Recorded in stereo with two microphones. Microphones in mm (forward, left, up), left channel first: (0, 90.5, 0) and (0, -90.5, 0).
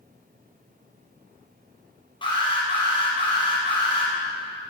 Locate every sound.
2.2 s an alarm: 25° left (ahead or behind), 5 m